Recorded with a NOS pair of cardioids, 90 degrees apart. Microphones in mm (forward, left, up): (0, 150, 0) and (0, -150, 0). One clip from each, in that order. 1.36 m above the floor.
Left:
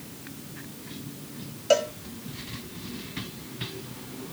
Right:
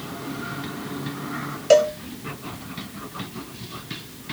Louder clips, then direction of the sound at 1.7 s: Right 7 dB; 20° right.